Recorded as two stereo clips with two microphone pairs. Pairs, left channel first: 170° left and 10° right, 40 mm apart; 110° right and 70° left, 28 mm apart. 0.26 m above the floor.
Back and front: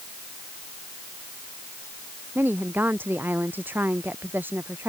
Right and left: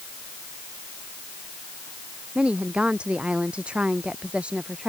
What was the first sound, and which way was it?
A woman speaking, 20° left.